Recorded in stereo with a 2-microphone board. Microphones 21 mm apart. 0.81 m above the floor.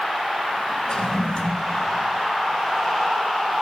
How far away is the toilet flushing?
About 1.2 m.